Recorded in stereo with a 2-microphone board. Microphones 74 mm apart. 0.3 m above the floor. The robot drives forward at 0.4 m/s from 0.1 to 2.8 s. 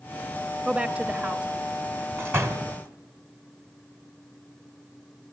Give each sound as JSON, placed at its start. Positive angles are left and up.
{"t": 0.7, "sound": "a woman speaking", "side_deg": -15, "distance_m": 1.1}
{"t": 2.2, "sound": "a door slam", "side_deg": -35, "distance_m": 1.6}